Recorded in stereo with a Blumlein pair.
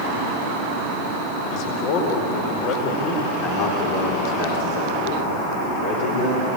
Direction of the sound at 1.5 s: 45° left.